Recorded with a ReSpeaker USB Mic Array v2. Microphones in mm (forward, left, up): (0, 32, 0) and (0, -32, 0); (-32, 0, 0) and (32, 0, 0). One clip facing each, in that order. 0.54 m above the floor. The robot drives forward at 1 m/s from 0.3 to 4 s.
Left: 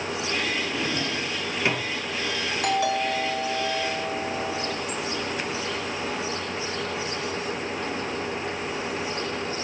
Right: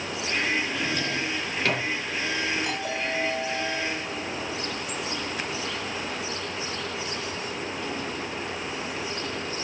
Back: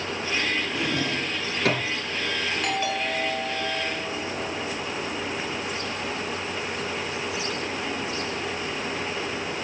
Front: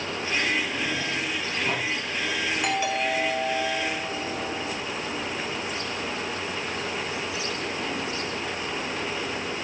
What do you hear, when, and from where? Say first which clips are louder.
0.8 s a drawer: even, back 2 dB; 155° left, 2.5 m; by 1.9 s 165° left, 3.5 m
2.6 s a doorbell: left 6 dB, front 2 dB; 80° left, 6.5 m; by 4.8 s 95° left, 6.5 m